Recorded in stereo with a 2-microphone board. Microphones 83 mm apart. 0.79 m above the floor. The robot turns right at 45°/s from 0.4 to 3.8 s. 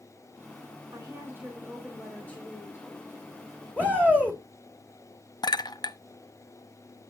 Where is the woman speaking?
45° right, 4 m; by 2.9 s 40° left, 4 m.